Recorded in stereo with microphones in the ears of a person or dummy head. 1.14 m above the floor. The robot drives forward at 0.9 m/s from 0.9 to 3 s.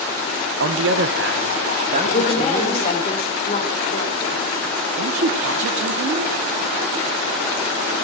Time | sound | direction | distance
0.6 | a man speaking | 60° right (ahead or behind) | 0.7 m
2.0 | a woman speaking | 45° left (ahead or behind) | 2 m
5.0 | a woman speaking | 65° right (ahead or behind) | 1.2 m